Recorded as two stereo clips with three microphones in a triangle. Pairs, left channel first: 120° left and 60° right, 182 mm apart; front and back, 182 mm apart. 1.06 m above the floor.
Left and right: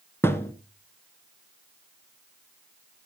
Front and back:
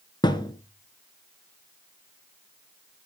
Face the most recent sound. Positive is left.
turn(degrees=50)